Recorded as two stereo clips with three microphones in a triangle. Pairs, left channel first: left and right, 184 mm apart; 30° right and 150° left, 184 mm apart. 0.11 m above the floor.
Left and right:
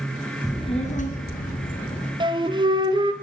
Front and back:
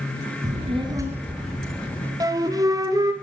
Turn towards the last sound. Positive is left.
turn(degrees=-145)